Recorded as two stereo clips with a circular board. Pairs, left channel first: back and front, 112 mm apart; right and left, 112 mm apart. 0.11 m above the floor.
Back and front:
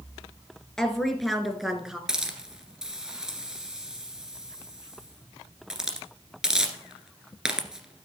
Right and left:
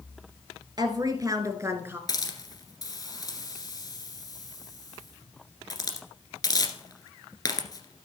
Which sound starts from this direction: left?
A woman speaking, at 0.8 s.